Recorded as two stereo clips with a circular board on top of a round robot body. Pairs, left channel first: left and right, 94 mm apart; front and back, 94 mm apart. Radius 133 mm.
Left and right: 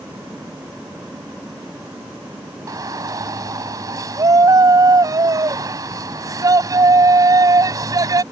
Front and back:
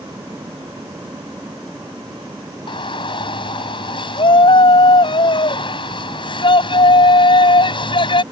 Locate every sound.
2.7 s a shout: 35° right